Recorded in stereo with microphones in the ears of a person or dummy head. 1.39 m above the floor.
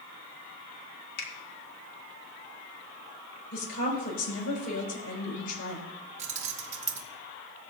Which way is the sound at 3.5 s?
50° left (ahead or behind).